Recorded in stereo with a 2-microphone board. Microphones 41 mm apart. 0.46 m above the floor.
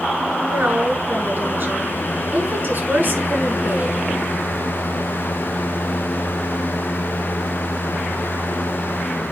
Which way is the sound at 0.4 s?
55° right (ahead or behind).